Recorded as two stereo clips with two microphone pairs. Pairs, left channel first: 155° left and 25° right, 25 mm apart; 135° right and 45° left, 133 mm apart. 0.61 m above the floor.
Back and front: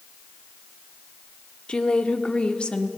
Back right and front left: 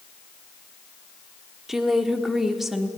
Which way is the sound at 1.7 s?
130° left.